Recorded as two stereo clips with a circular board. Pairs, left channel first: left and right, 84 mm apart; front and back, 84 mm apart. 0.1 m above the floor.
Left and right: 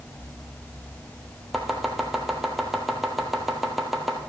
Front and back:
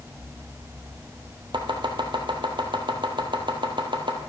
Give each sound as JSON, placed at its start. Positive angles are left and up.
{"t": 1.5, "sound": "chopping", "azimuth_deg": 180, "distance_m": 1.1}